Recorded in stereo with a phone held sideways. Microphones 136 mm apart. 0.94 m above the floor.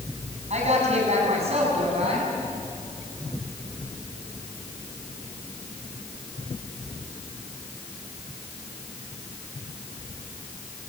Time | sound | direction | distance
0.5 | a woman speaking | 55° right (ahead or behind) | 7.5 m